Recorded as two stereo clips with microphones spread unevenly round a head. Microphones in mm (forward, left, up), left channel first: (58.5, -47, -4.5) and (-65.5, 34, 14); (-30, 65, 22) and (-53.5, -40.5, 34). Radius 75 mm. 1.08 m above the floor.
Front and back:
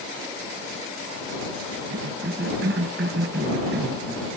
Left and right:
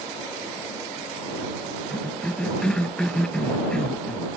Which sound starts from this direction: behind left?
A cough, at 1.9 s.